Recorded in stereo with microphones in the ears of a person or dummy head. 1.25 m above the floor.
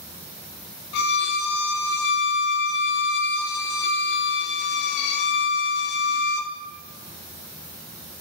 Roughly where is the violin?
Left.